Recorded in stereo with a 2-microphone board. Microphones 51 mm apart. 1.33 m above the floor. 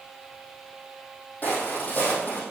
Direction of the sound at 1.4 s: 35° left (ahead or behind).